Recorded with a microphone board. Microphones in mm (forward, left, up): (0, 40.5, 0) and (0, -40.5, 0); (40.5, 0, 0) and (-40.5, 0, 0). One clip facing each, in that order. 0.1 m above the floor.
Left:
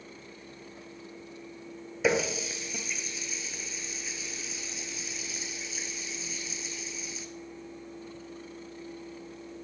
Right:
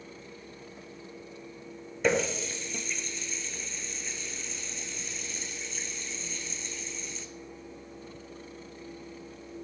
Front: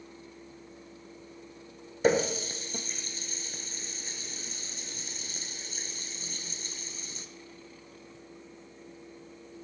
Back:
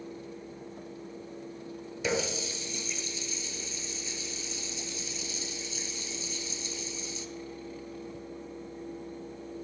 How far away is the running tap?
About 1.1 m.